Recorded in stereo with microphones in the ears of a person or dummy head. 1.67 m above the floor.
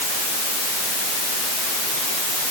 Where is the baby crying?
I don't hear a baby crying.